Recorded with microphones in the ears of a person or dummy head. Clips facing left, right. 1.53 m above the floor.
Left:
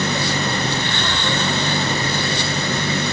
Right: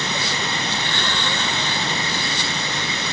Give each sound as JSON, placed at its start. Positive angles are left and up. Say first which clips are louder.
{"t": 0.0, "sound": "an engine running", "louder": "left 5 dB", "side_deg": 50}